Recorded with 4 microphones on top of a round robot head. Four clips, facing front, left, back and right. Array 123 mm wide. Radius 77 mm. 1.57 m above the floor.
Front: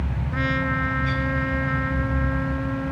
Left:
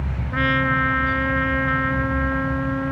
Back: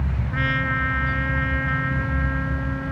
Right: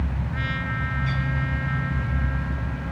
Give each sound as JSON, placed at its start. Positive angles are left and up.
{"t": 0.3, "sound": "a trumpet", "azimuth_deg": 70}